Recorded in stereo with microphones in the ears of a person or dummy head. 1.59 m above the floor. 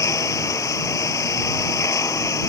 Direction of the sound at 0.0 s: 15° left (ahead or behind).